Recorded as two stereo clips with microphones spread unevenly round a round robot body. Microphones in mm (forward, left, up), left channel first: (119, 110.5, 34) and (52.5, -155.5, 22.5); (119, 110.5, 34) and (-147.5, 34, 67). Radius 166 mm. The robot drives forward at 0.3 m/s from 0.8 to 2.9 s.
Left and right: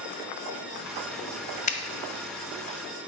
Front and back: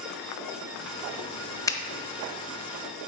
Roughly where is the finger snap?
Ahead left.